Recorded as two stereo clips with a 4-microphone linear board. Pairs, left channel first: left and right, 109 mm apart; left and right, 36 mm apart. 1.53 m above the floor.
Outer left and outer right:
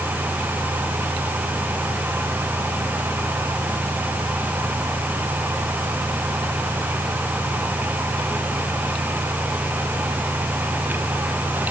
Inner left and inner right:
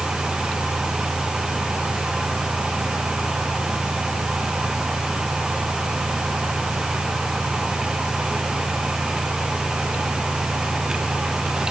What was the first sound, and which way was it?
Only background noise.